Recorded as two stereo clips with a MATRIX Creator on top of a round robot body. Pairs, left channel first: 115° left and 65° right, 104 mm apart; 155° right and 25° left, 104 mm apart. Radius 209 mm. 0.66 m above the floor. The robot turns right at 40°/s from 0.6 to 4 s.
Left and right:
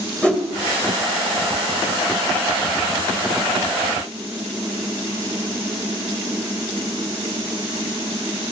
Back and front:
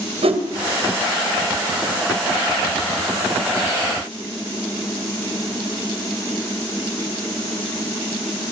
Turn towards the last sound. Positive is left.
turn(degrees=170)